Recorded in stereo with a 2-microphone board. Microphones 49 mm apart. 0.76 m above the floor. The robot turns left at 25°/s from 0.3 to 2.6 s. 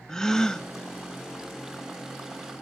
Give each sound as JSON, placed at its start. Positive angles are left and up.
{"t": 0.1, "sound": "a gasp", "side_deg": 10, "distance_m": 0.6}